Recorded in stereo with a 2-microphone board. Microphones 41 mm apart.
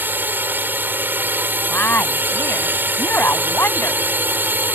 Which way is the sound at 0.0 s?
50° right (ahead or behind).